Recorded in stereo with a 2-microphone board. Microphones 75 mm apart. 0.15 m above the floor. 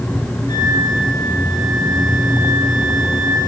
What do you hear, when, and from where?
0.5 s a flute: 75° left (ahead or behind), 3 m